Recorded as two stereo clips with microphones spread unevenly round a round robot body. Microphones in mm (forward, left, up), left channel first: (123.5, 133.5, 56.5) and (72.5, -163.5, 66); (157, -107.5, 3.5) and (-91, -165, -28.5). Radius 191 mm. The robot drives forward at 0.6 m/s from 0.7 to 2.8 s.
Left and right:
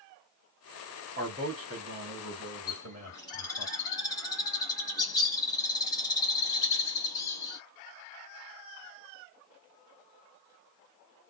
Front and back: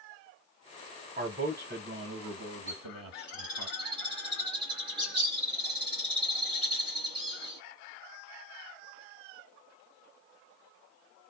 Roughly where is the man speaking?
Behind right.